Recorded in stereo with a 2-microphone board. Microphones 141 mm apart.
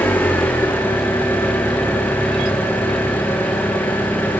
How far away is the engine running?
About 3.5 m.